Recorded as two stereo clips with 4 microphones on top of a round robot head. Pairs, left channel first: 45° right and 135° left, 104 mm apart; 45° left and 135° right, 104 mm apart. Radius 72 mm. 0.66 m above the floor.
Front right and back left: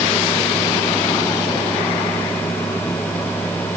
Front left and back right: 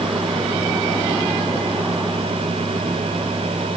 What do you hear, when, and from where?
Only background noise.